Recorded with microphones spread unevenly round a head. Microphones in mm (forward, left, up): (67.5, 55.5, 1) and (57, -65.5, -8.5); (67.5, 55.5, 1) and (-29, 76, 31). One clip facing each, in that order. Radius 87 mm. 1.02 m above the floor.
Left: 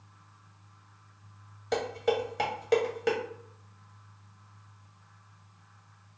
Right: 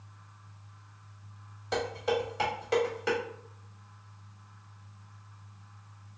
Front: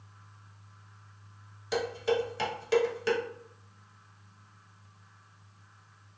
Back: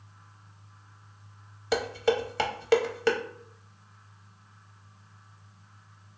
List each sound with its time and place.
1.7 s dishes clattering: 145° left, 0.7 m